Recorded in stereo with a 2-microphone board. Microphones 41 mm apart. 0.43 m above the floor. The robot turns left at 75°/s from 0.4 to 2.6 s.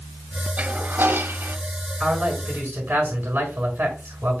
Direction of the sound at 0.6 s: 40° right.